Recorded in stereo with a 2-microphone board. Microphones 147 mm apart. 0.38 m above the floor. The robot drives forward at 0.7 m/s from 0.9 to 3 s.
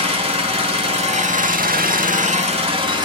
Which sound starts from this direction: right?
An engine running, at 0.0 s.